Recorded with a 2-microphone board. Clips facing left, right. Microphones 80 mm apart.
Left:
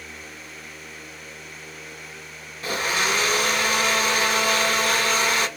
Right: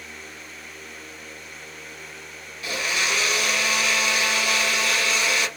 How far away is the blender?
About 0.5 m.